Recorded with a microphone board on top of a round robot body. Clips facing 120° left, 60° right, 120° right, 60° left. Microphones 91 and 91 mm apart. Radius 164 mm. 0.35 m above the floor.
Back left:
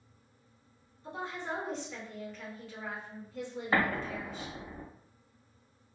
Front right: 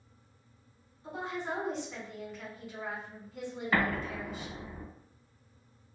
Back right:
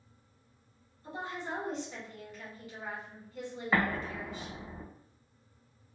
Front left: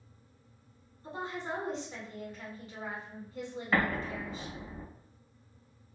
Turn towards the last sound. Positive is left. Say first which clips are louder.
# back left 1 dB, even
turn(degrees=170)